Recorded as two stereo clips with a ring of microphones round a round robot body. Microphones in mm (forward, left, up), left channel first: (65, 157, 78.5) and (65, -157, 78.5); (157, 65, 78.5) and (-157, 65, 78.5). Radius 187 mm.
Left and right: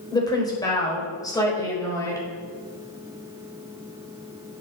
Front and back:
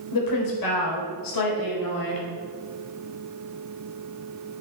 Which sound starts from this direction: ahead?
A woman speaking, at 0.1 s.